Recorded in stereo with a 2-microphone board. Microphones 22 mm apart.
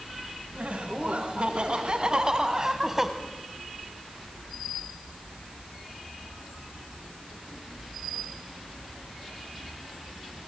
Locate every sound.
0.6 s laughter: 70° right (ahead or behind), 3 m; by 3.1 s 15° right (ahead or behind), 1.6 m